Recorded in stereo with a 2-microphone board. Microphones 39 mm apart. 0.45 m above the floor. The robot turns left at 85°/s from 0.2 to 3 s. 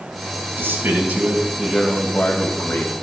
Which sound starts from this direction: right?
A man speaking, at 0.6 s.